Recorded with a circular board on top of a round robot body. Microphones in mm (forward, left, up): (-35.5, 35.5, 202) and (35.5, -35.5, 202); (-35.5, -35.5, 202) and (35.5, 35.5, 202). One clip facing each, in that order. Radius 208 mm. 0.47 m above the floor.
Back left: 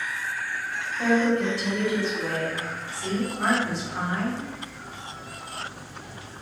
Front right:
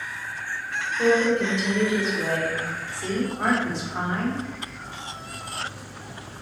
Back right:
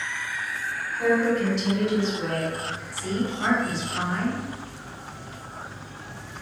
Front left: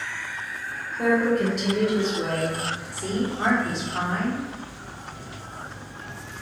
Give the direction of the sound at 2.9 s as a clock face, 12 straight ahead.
11 o'clock.